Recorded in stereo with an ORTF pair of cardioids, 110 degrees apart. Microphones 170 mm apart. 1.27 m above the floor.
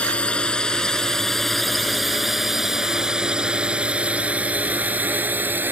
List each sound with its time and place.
0.0 s a drone: 5° left; by 5.7 s 10° right